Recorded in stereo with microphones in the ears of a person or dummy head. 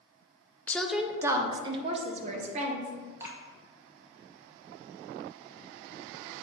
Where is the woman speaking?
10° left (ahead or behind), 0.6 m; by 2.9 s 50° right (ahead or behind), 1.4 m.